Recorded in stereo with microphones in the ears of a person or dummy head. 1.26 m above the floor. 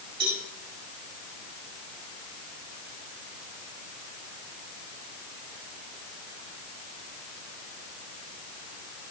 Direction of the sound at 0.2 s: 60° right (ahead or behind).